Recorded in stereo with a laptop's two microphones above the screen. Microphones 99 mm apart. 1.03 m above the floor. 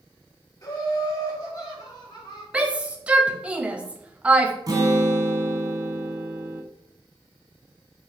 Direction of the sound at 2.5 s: 10° right (ahead or behind).